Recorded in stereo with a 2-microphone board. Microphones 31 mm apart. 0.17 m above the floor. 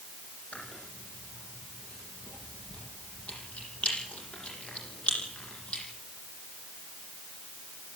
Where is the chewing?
40° left (ahead or behind), 8.5 m.